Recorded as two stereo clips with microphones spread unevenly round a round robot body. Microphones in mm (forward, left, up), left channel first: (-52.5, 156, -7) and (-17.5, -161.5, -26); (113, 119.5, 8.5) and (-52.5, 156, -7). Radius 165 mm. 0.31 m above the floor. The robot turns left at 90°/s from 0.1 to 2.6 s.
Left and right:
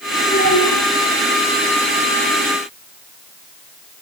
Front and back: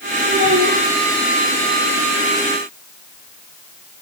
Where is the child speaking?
175° left, 4.5 m; by 0.8 s 125° left, 4.5 m.